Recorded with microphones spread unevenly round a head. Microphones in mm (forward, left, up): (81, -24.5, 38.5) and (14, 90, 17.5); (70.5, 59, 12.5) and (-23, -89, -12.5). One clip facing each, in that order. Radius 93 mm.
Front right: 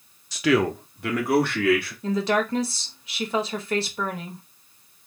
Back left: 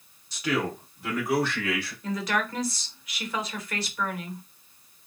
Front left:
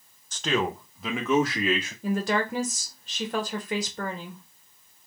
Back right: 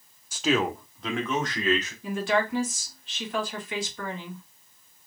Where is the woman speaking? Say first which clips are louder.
Front right 5 dB, front left 1 dB; 5° left, 1.5 m.